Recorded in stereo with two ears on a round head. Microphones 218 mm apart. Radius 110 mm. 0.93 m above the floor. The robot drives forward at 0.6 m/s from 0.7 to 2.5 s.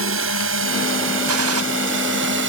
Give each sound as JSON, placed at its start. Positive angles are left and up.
{"t": 0.0, "sound": "a drone", "side_deg": -60}
{"t": 1.3, "sound": "a gunshot", "side_deg": -65}